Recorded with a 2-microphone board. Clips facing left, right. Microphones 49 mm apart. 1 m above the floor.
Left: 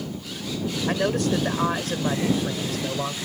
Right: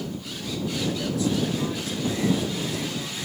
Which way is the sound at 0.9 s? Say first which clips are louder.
Left 5 dB; 65° left (ahead or behind).